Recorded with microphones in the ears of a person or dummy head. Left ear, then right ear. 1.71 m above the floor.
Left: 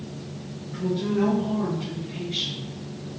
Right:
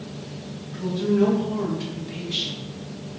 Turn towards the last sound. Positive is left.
turn(degrees=-45)  # may be behind; listen again after turning